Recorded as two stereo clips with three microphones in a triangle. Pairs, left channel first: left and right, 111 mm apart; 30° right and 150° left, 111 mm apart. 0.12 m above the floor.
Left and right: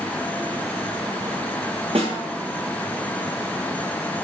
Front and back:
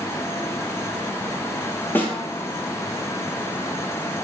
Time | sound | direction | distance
1.9 | a snare drum | 105° right | 0.6 m